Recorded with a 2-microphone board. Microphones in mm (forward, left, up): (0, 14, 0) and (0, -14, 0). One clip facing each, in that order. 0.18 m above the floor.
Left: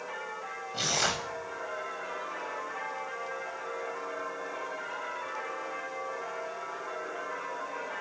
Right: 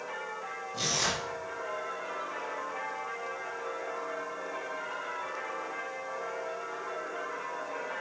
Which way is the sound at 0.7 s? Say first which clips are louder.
Left 2 dB; 30° left (ahead or behind).